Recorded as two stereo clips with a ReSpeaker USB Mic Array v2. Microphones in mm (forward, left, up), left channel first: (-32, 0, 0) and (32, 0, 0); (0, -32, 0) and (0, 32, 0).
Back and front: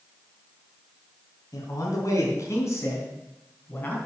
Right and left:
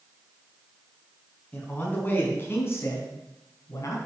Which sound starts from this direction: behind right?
A man speaking, at 1.5 s.